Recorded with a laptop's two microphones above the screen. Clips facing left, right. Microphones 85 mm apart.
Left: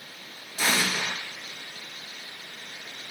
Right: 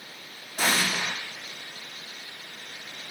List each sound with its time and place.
0.6 s an explosion: 45° right (ahead or behind), 0.8 m